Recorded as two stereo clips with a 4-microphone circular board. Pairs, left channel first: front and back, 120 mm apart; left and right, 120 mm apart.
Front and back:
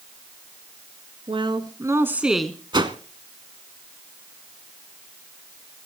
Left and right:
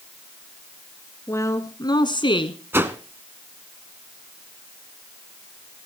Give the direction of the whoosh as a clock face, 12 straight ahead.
5 o'clock.